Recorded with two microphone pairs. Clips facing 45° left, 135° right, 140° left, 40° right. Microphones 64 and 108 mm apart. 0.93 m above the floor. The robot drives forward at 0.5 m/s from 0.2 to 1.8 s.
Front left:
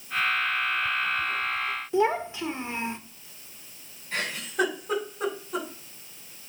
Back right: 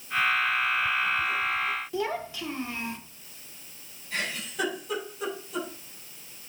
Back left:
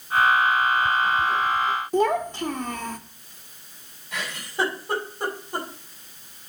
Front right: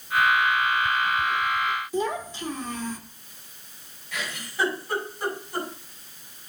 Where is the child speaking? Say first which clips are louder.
Front left 6 dB, back left 6 dB; 110° left, 1.2 m.